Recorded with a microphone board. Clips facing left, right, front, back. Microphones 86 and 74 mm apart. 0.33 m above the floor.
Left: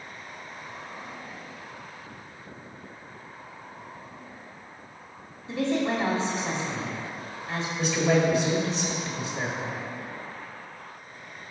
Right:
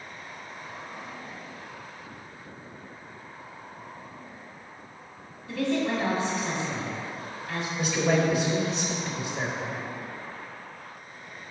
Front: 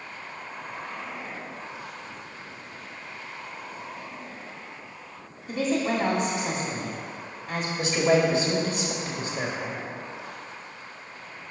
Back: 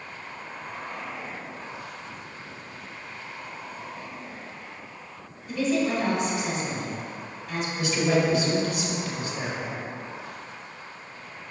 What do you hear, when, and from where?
5.5 s a woman speaking: 35° left, 1.5 m
7.8 s a man speaking: 10° right, 1.5 m